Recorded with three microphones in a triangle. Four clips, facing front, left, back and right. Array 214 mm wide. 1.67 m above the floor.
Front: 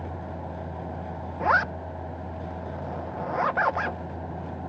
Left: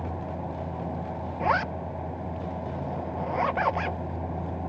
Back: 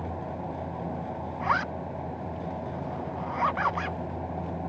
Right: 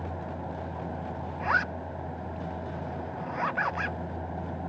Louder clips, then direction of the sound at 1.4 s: Left 3 dB, front 5 dB; 50° left.